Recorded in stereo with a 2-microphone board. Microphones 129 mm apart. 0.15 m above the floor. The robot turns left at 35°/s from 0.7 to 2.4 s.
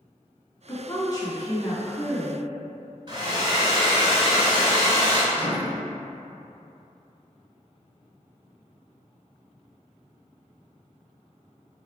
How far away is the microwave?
About 0.9 m.